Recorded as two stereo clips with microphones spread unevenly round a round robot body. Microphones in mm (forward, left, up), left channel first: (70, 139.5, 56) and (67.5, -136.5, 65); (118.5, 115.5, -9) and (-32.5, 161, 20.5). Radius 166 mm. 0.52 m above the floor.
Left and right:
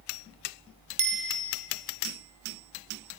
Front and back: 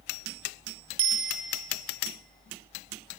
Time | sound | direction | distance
1.0 | a bicycle bell | 150° right | 2 m